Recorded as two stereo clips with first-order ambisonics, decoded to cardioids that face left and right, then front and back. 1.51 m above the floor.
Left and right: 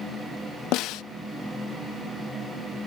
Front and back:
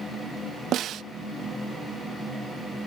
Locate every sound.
0.7 s a snare drum: 125° left